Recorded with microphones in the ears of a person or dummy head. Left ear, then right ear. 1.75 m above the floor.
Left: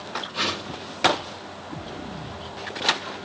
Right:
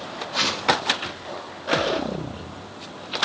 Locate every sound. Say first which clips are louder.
0.3 s a whoosh: right 8 dB; 90° right, 4.5 m